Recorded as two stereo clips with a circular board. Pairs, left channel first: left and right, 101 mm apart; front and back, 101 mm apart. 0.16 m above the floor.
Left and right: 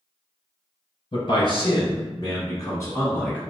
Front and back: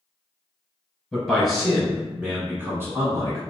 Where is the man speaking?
85° left, 1.9 m; by 3.4 s 155° left, 1.4 m.